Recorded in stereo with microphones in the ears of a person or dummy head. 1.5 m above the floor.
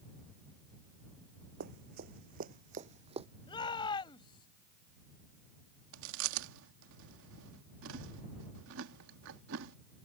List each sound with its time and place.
1.6 s running footsteps: 50° right (ahead or behind); by 3.3 s 25° right (ahead or behind)
3.5 s a shout: 25° left (ahead or behind)
5.9 s chewing: 70° right (ahead or behind)